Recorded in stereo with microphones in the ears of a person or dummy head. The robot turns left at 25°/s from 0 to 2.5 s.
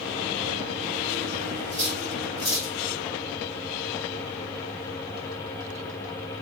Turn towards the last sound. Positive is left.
turn(degrees=65)  # may be behind; listen again after turning